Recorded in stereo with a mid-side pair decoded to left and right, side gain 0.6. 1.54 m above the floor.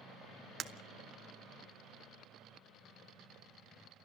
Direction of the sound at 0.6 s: 35° right.